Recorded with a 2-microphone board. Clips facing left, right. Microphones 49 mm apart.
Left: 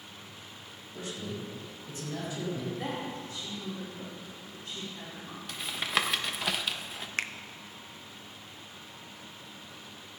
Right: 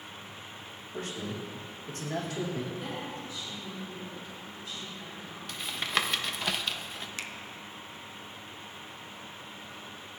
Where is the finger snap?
50° left (ahead or behind), 0.6 m.